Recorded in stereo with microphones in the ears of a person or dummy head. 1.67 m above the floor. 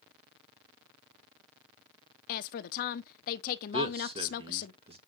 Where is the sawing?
I don't hear sawing.